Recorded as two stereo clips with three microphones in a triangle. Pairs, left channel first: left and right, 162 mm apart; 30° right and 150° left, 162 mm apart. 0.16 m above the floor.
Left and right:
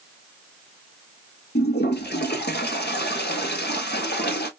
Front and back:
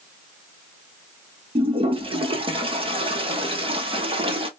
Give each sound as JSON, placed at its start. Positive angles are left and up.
{"t": 1.6, "sound": "a toilet flushing", "azimuth_deg": 95, "distance_m": 0.9}